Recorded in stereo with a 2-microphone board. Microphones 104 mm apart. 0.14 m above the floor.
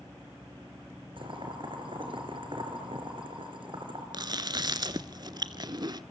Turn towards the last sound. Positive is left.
turn(degrees=-45)  # may be behind; listen again after turning